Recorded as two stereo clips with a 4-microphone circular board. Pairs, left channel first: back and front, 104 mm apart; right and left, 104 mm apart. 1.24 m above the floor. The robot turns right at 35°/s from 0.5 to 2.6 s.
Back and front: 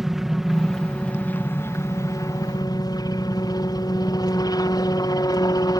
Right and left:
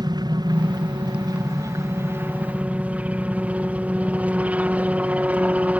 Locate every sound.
0.0 s a helicopter: 85° left; by 5.8 s 160° left